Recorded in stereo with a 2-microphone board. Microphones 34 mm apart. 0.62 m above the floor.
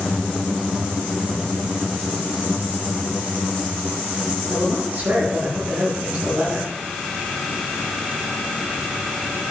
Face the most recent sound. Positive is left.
turn(degrees=-65)  # may be behind; listen again after turning